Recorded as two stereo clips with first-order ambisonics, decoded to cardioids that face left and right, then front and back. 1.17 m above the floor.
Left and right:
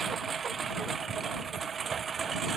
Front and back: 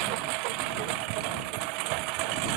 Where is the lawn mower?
160° right.